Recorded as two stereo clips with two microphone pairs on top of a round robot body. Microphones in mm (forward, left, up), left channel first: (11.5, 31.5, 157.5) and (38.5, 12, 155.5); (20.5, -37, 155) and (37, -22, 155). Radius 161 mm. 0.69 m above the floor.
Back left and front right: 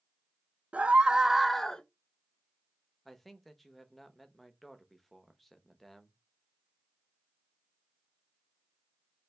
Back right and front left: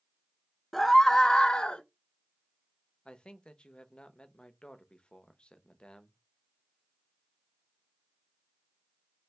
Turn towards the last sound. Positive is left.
turn(degrees=-125)